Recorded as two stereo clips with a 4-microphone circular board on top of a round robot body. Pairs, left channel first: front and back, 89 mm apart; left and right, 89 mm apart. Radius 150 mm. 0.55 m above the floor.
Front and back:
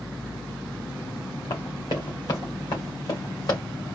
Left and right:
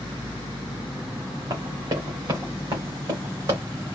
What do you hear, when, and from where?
1.5 s running footsteps: 40° right, 2.5 m